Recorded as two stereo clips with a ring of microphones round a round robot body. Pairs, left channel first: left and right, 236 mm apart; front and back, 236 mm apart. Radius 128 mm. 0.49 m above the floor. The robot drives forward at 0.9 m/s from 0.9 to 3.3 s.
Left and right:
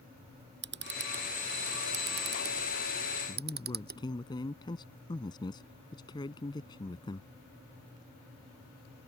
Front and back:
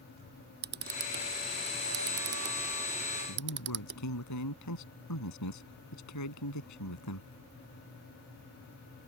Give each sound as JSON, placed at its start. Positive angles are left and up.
{"t": 0.6, "sound": "a camera shutter", "azimuth_deg": -135}
{"t": 3.3, "sound": "a man speaking", "azimuth_deg": 15}